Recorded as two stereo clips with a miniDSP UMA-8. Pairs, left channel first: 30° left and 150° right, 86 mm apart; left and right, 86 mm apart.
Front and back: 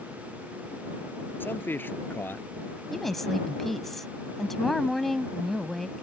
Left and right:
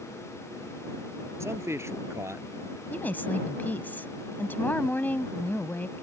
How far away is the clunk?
No clunk in this recording.